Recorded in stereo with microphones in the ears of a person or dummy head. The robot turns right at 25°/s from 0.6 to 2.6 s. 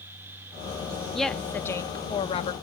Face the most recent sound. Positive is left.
turn(degrees=40)